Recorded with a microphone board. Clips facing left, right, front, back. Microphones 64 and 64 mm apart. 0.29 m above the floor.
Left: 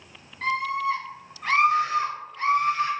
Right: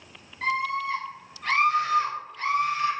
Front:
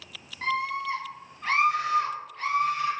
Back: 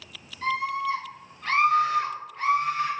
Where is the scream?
Straight ahead, 2.0 m; by 2.9 s 130° left, 1.9 m.